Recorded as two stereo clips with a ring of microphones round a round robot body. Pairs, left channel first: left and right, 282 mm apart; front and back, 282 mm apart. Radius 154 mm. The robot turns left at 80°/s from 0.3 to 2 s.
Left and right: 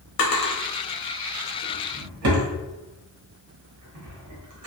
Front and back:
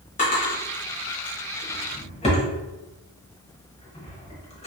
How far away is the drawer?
About 1.1 m.